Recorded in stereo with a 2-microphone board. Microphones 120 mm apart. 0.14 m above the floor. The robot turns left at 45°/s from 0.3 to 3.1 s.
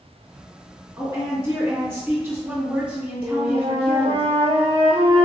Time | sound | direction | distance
1.0 | a woman speaking | 20° right (ahead or behind) | 1.5 m
3.2 | a flute | 55° right (ahead or behind) | 0.8 m